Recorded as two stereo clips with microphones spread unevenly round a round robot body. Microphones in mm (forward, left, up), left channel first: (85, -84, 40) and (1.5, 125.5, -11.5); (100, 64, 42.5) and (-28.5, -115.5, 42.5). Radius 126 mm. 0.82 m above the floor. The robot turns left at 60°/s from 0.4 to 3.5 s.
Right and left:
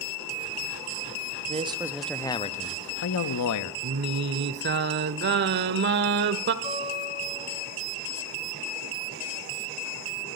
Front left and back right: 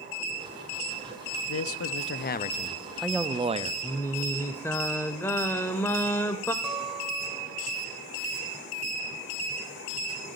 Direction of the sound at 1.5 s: 60° left.